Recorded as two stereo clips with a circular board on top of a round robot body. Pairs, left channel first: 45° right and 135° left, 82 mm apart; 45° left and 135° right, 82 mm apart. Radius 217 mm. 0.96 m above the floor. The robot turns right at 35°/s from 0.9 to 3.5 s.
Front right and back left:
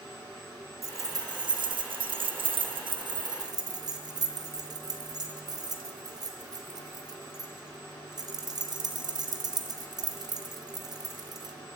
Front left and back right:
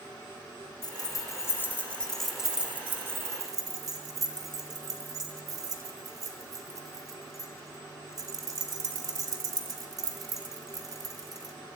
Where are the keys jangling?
85° left, 1.8 m; by 11.6 s straight behind, 1.8 m.